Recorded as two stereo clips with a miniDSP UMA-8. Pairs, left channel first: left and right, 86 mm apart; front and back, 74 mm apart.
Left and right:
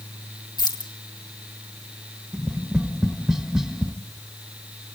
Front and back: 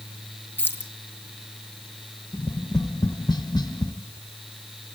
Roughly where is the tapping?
Ahead.